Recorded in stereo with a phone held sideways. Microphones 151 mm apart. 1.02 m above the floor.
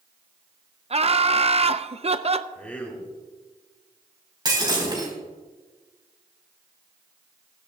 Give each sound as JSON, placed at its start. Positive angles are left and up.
{"t": 0.9, "sound": "laughter", "side_deg": -45, "distance_m": 0.6}
{"t": 2.5, "sound": "a man speaking", "side_deg": 10, "distance_m": 3.0}
{"t": 4.5, "sound": "breaking glass", "side_deg": -30, "distance_m": 4.5}